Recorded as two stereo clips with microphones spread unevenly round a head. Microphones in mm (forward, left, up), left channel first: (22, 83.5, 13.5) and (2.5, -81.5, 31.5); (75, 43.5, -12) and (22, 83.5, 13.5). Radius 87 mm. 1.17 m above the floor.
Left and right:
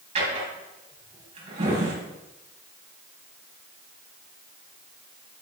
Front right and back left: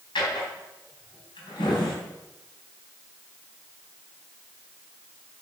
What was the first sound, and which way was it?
A drawer, 45° right.